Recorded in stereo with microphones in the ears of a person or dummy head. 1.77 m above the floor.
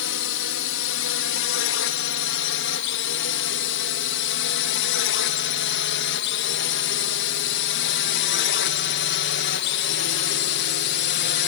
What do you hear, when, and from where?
0.0 s a drone: 65° left (ahead or behind); by 11.5 s 55° left (ahead or behind)